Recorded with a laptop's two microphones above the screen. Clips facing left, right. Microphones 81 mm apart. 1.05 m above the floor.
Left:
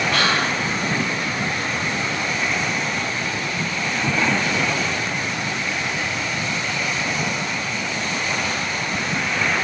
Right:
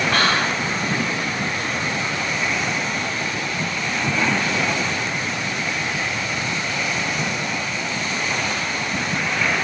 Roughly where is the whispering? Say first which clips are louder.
Right 1 dB; right.